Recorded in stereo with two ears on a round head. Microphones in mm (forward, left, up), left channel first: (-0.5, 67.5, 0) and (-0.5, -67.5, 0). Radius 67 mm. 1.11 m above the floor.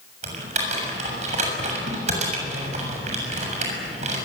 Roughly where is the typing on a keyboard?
Right.